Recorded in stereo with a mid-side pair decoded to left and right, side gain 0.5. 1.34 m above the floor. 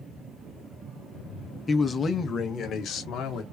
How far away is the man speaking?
About 1.2 m.